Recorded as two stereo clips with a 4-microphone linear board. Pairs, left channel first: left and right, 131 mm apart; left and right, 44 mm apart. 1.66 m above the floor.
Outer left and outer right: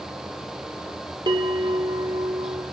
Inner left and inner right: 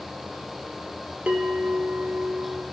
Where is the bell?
35° right (ahead or behind), 1.3 m.